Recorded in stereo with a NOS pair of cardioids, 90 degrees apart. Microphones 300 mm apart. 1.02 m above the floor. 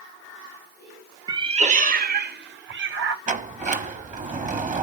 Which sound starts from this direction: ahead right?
A sliding door, at 3.3 s.